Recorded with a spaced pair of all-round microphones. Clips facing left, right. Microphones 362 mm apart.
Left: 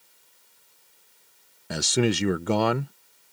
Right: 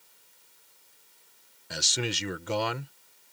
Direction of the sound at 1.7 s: 65° left (ahead or behind).